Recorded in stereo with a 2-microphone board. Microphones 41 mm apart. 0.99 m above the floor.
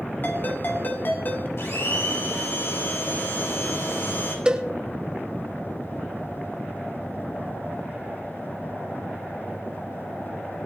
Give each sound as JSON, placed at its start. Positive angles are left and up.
{"t": 0.2, "sound": "a ringtone", "side_deg": 50, "distance_m": 2.0}
{"t": 1.6, "sound": "a blender", "side_deg": 75, "distance_m": 5.0}
{"t": 4.5, "sound": "a cowbell", "side_deg": -20, "distance_m": 1.1}